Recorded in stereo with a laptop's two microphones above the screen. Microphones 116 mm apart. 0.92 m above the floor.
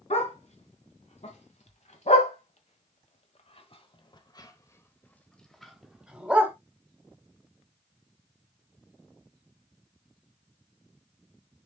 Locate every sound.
0.1 s a dog barking: 70° left (ahead or behind), 2.5 m; by 6.5 s 15° right (ahead or behind), 1.5 m